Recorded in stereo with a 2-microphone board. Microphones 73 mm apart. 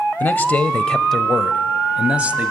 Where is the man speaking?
25° left (ahead or behind), 1.1 m; by 2.5 s 20° right (ahead or behind), 1.4 m.